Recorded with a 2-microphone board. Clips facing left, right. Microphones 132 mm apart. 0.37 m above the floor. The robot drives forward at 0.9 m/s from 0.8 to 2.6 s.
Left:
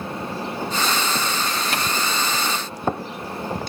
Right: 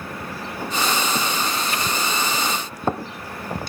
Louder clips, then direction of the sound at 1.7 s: Left 1 dB; 75° left (ahead or behind).